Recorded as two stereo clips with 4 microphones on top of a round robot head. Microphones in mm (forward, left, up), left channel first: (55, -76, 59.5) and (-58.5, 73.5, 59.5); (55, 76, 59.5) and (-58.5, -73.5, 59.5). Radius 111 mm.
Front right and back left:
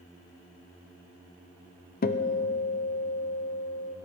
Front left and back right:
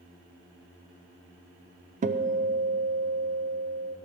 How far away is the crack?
No crack in this recording.